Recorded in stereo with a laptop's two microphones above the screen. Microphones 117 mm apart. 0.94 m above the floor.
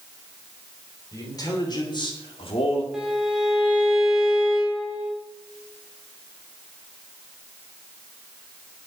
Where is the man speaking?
30° left (ahead or behind), 3.5 m; by 2.8 s 60° left (ahead or behind), 2.5 m.